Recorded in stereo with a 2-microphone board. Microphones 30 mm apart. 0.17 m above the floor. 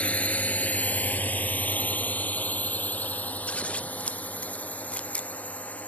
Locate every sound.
0.0 s a drone: 50° left (ahead or behind); by 5.9 s 60° left (ahead or behind)
3.5 s scissors: 45° left (ahead or behind)